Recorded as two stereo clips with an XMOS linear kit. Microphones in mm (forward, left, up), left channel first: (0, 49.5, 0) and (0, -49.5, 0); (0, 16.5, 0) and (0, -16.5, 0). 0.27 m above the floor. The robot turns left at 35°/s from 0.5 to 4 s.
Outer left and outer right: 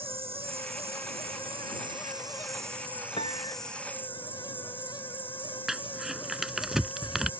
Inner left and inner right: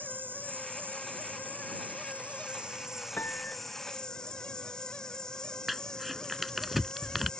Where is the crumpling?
5° right (ahead or behind).